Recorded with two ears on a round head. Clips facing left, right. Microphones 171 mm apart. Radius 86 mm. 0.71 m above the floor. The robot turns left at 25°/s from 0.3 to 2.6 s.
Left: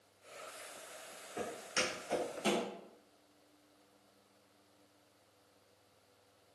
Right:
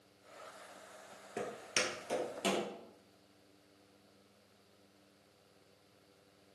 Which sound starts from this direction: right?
Footsteps, at 1.4 s.